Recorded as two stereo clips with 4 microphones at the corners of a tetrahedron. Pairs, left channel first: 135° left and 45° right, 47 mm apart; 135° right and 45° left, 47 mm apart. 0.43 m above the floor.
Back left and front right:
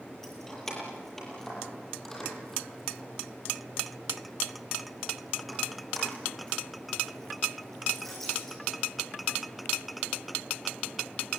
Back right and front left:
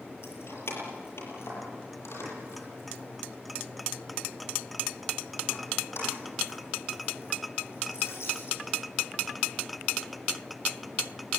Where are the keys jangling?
145° right, 7 m; by 8.6 s 140° right, 16.5 m.